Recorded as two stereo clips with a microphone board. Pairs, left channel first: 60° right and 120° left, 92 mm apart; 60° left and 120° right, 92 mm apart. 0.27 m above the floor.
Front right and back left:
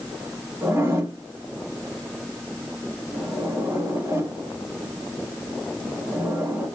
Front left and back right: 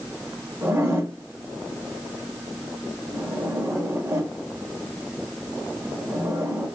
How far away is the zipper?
About 1.5 m.